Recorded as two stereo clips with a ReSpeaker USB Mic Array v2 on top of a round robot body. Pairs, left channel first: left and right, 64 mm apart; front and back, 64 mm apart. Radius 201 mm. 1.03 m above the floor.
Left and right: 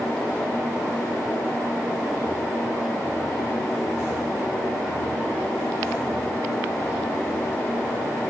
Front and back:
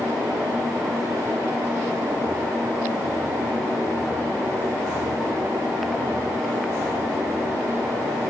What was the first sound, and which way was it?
Only background noise.